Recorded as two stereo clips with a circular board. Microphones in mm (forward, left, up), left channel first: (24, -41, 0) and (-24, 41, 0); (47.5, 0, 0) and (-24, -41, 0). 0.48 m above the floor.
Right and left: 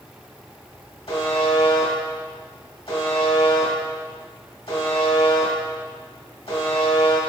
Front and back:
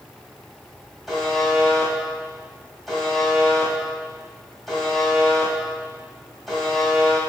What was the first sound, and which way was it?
A buzzer, 60° right.